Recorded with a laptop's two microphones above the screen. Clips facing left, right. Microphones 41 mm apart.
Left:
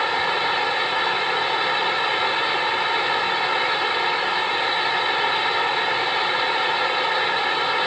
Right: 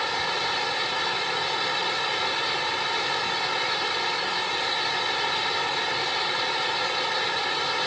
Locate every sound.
0.0 s a fan: 25° left (ahead or behind)